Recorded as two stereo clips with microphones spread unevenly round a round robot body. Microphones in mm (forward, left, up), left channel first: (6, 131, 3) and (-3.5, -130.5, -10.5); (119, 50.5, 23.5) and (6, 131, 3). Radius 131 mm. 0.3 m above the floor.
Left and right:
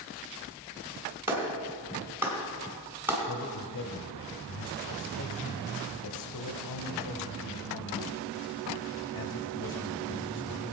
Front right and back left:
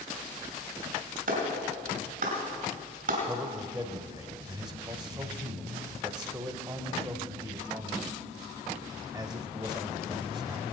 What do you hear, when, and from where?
1.3 s a clap: 175° right, 2.5 m
3.3 s a man speaking: 75° left, 1.2 m